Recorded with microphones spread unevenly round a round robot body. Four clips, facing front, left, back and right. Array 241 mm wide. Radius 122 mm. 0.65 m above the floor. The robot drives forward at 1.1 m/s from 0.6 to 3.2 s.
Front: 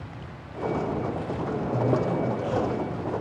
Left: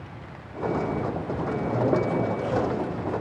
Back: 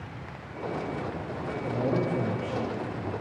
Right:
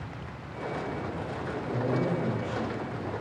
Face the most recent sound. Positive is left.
turn(degrees=140)